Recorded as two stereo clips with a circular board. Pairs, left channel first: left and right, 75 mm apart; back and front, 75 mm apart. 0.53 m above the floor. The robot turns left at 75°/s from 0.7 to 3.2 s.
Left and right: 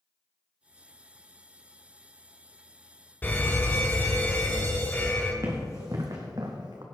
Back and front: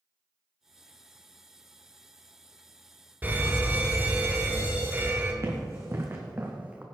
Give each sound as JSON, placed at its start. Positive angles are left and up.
{"t": 3.2, "sound": "a fire alarm", "azimuth_deg": 45, "distance_m": 2.5}
{"t": 5.4, "sound": "running footsteps", "azimuth_deg": -45, "distance_m": 2.5}